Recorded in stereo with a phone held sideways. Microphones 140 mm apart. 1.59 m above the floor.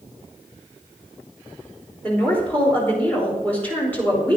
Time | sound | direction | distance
2.0 | a woman speaking | 15° left (ahead or behind) | 4 m